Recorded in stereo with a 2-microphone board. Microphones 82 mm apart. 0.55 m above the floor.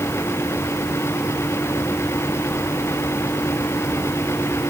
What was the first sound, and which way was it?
Only background noise.